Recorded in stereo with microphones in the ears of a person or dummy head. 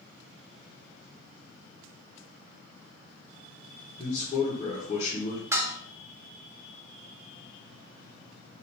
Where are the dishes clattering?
15° right (ahead or behind), 0.7 m.